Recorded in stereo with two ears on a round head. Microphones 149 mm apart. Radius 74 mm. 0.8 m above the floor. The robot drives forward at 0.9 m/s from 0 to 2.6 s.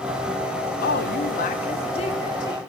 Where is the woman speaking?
55° left (ahead or behind), 0.8 m; by 2.7 s 25° left (ahead or behind), 1.6 m.